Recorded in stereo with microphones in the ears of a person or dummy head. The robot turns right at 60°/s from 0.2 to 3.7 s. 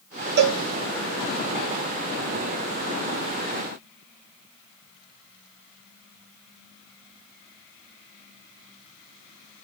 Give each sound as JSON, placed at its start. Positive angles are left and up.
{"t": 0.4, "sound": "a cowbell", "side_deg": -55, "distance_m": 0.7}